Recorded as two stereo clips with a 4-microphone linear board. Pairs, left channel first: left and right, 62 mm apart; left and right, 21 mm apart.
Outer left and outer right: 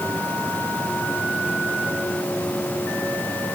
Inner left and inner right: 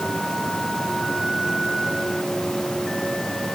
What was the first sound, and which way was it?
Only background noise.